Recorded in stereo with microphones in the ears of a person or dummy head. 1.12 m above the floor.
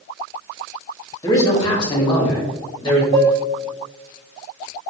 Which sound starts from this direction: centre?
A man speaking, at 1.2 s.